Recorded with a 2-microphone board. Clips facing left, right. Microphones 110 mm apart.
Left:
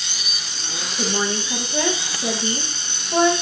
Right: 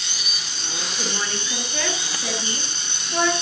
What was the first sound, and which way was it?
A woman speaking, 20° left (ahead or behind).